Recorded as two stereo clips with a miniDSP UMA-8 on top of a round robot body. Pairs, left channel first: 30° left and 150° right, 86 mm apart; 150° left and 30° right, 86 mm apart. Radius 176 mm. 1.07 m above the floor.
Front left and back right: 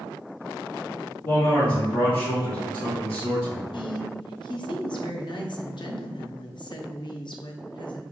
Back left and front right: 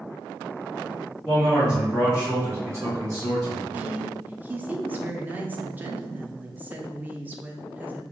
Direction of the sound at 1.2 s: 60° left.